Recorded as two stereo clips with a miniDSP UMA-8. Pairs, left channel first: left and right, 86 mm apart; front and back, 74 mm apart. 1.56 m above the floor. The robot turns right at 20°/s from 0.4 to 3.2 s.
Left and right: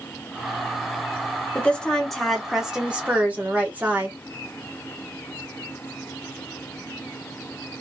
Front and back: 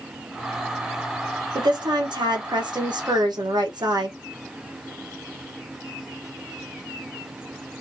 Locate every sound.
1.6 s a woman speaking: 165° left, 1.4 m; by 4.2 s 160° right, 1.4 m